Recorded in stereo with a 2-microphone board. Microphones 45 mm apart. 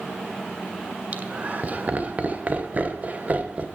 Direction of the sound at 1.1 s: 35° right (ahead or behind).